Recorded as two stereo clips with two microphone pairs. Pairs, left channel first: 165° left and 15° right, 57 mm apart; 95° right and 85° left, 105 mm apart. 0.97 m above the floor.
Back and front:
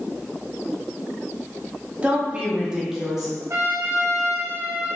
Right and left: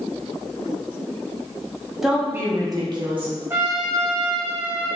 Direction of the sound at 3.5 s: 20° left.